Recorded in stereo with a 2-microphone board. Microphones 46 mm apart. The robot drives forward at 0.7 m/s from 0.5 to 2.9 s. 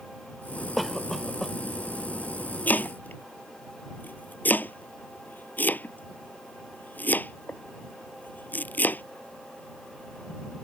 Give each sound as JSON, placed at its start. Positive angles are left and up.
{"t": 0.8, "sound": "a cough", "side_deg": 0}
{"t": 2.7, "sound": "chopping", "side_deg": 40}